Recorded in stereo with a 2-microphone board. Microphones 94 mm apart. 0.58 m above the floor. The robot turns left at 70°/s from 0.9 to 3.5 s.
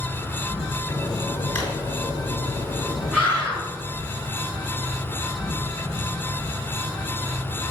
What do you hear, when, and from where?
0.0 s an insect: 15° right, 3 m; by 7.7 s 165° left, 3 m
1.6 s a drawer: 20° left (ahead or behind), 2.5 m; by 1.7 s 10° left (ahead or behind), 2.5 m
3.1 s a scream: centre (ahead or behind), 3.5 m; by 3.6 s 25° left (ahead or behind), 3.5 m